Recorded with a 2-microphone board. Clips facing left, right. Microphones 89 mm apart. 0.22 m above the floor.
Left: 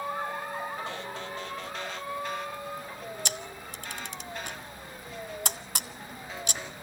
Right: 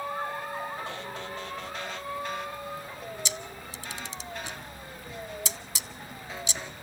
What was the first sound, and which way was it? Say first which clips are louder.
A camera shutter: even; 55° left (ahead or behind).